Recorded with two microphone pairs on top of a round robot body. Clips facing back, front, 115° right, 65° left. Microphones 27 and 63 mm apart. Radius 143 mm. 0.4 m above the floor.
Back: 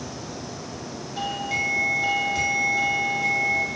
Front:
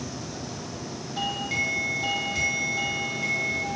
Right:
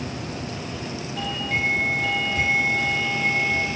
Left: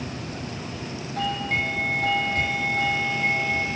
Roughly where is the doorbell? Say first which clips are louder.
Back 1 dB, left 1 dB; left.